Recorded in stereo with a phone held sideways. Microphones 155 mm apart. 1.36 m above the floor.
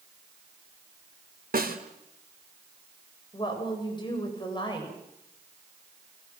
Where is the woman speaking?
30° left (ahead or behind), 8 m.